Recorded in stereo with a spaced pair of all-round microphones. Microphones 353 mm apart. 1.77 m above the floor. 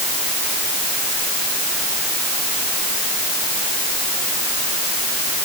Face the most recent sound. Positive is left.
No sound to turn to.